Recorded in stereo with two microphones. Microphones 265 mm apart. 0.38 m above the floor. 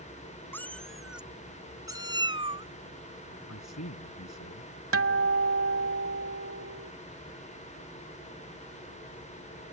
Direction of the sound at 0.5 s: 10° left (ahead or behind).